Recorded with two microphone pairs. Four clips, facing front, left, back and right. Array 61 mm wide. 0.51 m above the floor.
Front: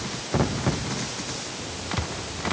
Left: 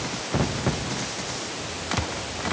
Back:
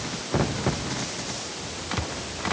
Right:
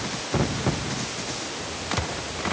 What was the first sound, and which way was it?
Only background noise.